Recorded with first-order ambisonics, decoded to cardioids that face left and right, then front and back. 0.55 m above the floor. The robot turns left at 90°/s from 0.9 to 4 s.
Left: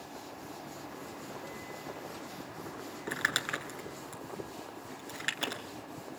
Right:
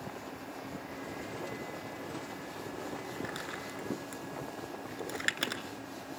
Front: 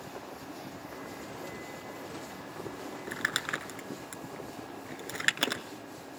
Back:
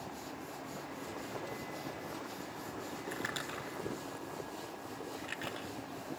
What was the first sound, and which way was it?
Crumpling, 75° left.